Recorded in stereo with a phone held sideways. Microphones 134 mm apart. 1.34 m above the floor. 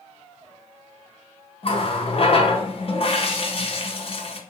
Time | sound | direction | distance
1.6 | a running tap | 45° left (ahead or behind) | 0.7 m